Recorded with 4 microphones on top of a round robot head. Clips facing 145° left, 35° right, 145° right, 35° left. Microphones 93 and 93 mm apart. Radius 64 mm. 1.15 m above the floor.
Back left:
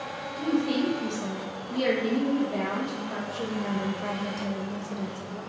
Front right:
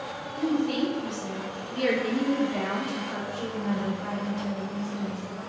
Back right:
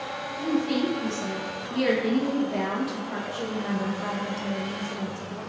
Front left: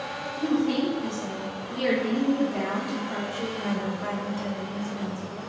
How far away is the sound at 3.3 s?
About 0.9 m.